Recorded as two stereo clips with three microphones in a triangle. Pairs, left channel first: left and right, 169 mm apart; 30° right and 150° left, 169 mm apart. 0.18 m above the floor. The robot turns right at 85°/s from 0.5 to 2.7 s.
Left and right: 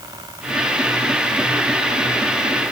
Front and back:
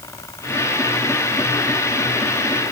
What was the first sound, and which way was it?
Only background noise.